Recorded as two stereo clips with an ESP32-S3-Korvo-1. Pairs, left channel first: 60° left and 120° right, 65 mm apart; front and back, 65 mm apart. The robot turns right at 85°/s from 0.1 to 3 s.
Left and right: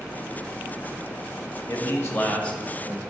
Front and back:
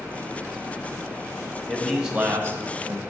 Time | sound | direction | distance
1.7 | a man speaking | 65° left | 1.6 m